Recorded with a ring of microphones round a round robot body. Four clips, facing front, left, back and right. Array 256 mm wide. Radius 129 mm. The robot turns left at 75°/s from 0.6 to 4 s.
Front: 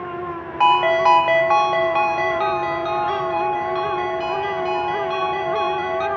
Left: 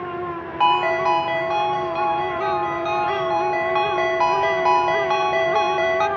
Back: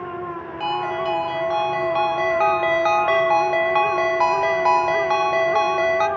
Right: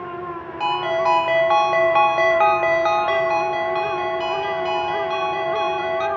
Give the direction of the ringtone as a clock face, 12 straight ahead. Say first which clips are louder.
Left 2 dB, front 9 dB; 11 o'clock.